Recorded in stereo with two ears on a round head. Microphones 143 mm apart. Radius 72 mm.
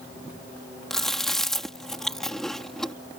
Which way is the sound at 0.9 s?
Centre (ahead or behind).